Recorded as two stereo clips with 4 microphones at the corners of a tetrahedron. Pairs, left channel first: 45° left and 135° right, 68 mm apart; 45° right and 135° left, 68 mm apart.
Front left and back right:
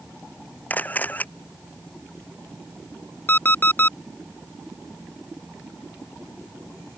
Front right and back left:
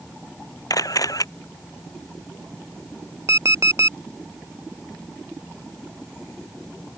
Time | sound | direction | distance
0.7 | a camera shutter | 20° right | ?
3.3 | an alarm clock | 100° left | ?